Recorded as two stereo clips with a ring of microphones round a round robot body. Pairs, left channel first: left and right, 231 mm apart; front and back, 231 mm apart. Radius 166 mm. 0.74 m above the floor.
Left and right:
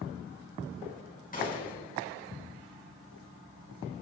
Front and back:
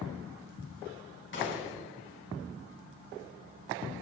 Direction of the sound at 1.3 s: 35° left.